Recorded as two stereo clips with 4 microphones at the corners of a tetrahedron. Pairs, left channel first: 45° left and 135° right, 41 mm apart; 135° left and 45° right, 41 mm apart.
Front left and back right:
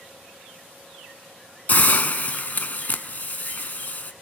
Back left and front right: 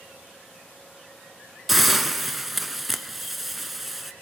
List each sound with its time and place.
1.7 s a hiss: 40° left, 0.6 m